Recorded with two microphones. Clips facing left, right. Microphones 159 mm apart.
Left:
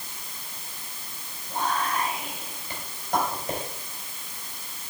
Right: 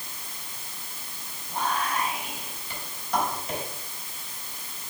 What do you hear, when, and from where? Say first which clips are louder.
1.5 s whispering: left 1 dB; 55° left (ahead or behind), 4.5 m